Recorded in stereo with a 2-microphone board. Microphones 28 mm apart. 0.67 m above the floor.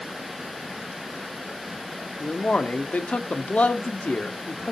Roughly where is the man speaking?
Left.